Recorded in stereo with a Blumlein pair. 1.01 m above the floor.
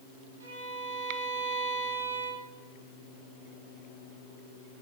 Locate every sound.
0.4 s a violin: 70° right, 8 m